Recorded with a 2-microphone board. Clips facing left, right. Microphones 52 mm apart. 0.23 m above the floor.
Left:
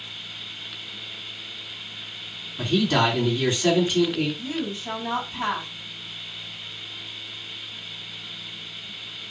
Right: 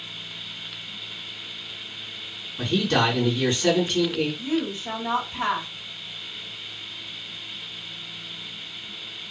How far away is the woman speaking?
About 1.6 m.